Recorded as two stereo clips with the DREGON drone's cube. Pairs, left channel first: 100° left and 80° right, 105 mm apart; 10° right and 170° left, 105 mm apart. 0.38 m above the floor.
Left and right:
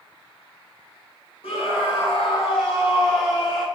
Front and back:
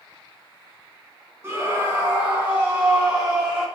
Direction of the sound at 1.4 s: 105° left.